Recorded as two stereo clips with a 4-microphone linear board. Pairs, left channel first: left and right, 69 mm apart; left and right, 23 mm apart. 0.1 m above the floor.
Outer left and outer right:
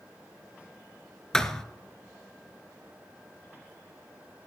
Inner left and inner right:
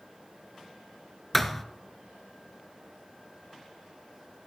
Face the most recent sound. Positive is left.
turn(degrees=10)  # may be behind; listen again after turning